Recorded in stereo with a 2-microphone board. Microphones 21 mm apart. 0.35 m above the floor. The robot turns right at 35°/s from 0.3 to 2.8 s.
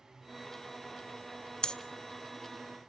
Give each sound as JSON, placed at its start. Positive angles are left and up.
{"t": 1.6, "sound": "breathing", "side_deg": 35, "distance_m": 0.6}